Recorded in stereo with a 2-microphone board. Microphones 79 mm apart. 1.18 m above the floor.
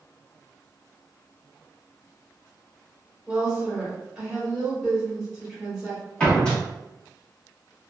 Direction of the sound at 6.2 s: 15° left (ahead or behind).